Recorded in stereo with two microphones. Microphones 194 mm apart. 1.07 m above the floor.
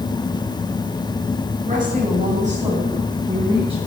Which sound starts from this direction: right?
A woman speaking, at 1.7 s.